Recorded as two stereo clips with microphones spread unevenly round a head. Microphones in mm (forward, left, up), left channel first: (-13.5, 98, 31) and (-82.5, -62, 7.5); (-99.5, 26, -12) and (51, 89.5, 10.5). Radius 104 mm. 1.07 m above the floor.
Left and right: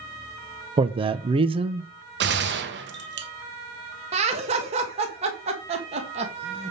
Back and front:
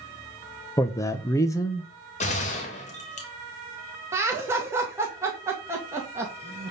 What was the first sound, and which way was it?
A man speaking, 110° right.